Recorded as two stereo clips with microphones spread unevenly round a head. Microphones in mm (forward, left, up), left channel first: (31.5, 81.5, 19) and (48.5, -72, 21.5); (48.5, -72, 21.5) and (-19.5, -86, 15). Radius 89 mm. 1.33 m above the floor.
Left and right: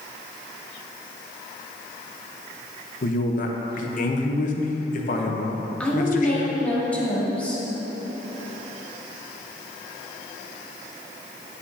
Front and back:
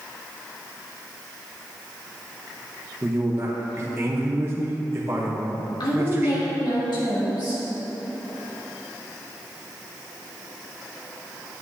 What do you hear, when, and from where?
3.0 s a man speaking: 130° left, 0.9 m
5.8 s a woman speaking: 15° left, 2.5 m